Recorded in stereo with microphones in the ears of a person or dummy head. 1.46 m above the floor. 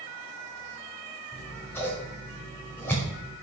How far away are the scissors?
About 5.5 m.